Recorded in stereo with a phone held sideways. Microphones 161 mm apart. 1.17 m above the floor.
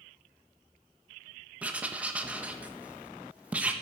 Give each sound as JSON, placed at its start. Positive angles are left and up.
{"t": 1.6, "sound": "writing", "side_deg": -10, "distance_m": 1.4}